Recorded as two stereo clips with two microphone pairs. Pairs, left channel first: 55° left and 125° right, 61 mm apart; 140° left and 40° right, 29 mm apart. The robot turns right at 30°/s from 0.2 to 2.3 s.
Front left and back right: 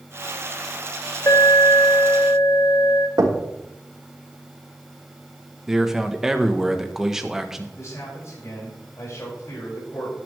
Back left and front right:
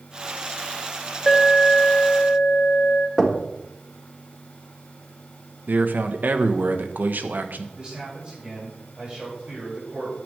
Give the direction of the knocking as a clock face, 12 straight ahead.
4 o'clock.